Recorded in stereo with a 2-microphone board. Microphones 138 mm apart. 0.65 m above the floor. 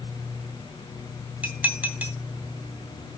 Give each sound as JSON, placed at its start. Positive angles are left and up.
{"t": 1.4, "sound": "dishes clattering", "side_deg": -10, "distance_m": 1.9}